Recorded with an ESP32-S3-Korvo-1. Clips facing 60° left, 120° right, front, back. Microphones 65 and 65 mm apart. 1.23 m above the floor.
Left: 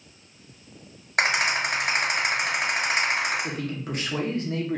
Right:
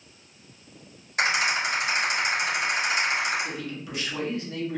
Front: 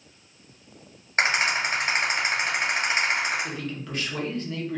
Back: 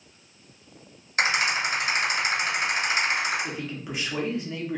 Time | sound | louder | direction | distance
1.2 | a rattle | left 1 dB, front 1 dB | 55° left | 1.7 m
3.4 | a man speaking | left 3 dB, even | 105° left | 0.9 m